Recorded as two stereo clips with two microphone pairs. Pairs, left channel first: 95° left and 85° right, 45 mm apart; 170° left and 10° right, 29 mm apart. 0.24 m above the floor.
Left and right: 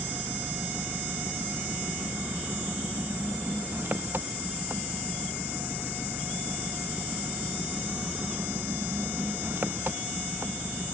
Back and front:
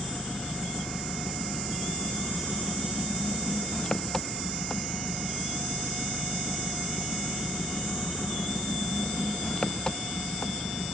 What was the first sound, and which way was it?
An engine running, 120° right.